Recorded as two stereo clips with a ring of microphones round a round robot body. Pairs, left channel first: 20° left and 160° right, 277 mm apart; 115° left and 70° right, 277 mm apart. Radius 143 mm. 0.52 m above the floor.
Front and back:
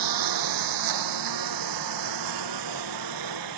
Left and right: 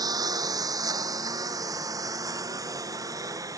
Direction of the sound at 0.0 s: 145° right.